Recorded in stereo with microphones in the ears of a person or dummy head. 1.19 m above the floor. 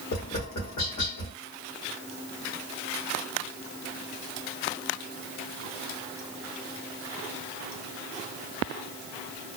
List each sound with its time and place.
0.1 s tapping: 55° left (ahead or behind), 1.2 m